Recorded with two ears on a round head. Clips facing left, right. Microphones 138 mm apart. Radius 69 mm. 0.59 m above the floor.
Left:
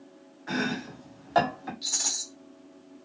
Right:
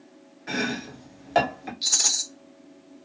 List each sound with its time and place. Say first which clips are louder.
0.5 s chopping: right 1 dB; 20° right (ahead or behind), 1.4 m
1.8 s a rattle: right 3 dB; 70° right (ahead or behind), 0.8 m